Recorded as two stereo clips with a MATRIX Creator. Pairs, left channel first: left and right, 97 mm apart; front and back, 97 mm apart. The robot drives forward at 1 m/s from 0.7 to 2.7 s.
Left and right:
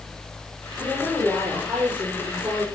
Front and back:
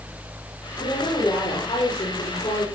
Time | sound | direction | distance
0.8 | a woman speaking | 15° right | 7.5 m